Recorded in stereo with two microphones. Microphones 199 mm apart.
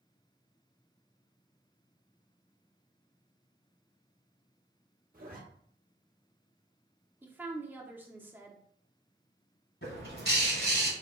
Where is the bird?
75° left (ahead or behind), 1.5 m.